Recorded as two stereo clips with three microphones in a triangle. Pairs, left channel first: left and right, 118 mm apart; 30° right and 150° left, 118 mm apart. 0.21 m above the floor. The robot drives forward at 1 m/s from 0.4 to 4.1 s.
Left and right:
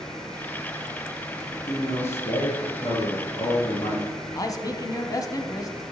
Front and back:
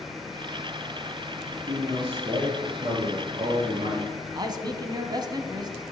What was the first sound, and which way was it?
A man speaking, 105° left.